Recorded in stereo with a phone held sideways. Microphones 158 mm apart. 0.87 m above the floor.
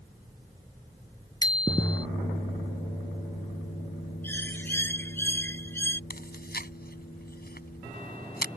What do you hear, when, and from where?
1.4 s a bicycle bell: 25° left (ahead or behind)
4.2 s a bird: 15° left (ahead or behind)
6.1 s chewing: 70° left (ahead or behind)